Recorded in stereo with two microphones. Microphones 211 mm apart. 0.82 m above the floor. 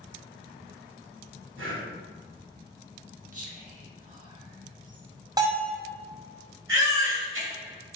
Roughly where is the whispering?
Right.